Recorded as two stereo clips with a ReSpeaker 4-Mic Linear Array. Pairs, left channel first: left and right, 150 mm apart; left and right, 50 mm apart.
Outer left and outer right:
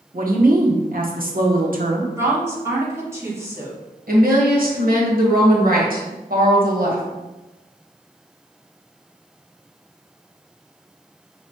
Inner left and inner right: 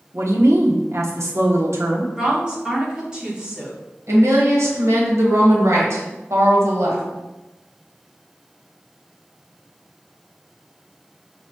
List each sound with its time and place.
0.1 s a woman speaking: 70° right (ahead or behind), 0.9 m
2.2 s a woman speaking: 20° right (ahead or behind), 1.7 m
4.1 s a woman speaking: 70° right (ahead or behind), 1.3 m